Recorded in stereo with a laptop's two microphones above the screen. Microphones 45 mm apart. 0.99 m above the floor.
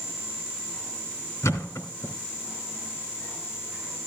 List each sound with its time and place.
1.4 s a thud: 80° left, 2.5 m